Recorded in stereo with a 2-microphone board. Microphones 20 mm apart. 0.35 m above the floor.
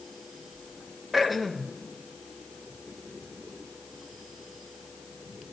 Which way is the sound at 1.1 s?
Centre (ahead or behind).